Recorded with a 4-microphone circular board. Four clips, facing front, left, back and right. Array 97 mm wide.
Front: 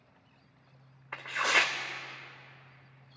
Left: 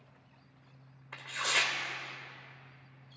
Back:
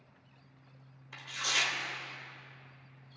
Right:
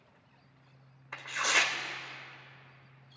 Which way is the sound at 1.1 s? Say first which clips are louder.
Right 3 dB, front 8 dB; 10° right.